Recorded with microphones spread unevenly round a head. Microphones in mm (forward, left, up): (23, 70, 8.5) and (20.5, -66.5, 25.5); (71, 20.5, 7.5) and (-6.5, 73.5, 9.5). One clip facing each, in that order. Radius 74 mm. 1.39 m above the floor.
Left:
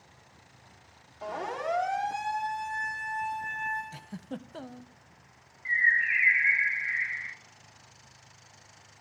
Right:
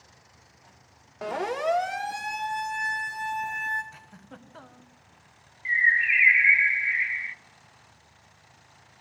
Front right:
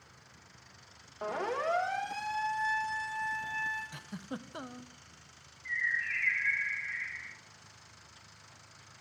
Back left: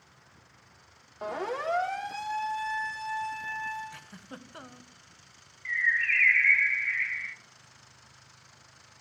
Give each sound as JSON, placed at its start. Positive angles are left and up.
{"t": 1.2, "sound": "a siren", "azimuth_deg": -125, "distance_m": 2.0}
{"t": 3.9, "sound": "a giggle", "azimuth_deg": 35, "distance_m": 1.1}
{"t": 5.7, "sound": "a bird", "azimuth_deg": -165, "distance_m": 0.6}